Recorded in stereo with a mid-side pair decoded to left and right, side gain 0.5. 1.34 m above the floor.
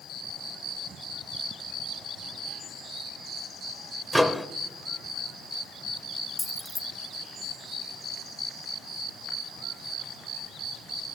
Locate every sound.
4.1 s a microwave: straight ahead, 0.6 m
6.4 s keys jangling: 15° left, 0.6 m